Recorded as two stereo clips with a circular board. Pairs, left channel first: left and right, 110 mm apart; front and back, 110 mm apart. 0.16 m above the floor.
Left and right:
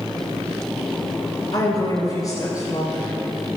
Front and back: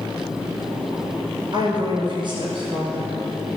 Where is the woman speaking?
145° left, 2.5 m.